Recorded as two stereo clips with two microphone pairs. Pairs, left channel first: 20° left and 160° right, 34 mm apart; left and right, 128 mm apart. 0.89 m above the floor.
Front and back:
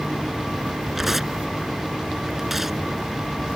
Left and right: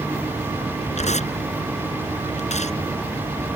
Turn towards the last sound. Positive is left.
turn(degrees=120)